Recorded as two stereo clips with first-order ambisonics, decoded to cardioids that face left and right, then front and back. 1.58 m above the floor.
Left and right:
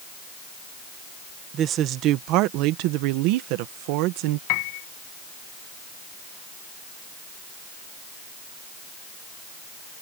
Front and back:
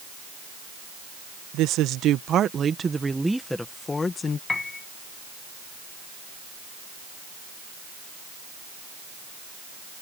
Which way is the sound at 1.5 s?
145° right.